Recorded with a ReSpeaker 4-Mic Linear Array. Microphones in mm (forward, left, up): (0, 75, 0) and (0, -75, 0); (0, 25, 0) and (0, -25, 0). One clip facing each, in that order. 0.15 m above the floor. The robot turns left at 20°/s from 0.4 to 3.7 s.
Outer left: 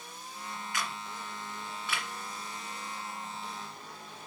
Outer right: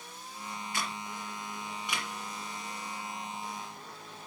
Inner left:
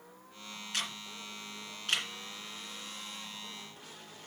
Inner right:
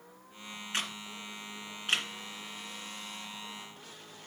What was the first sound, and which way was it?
A camera shutter, 30° right (ahead or behind).